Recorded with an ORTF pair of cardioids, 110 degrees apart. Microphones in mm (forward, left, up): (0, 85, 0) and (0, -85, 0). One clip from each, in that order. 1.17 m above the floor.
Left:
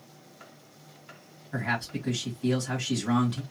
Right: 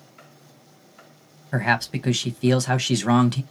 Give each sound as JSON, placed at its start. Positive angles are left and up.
{"t": 1.5, "sound": "a man speaking", "azimuth_deg": -60, "distance_m": 1.1}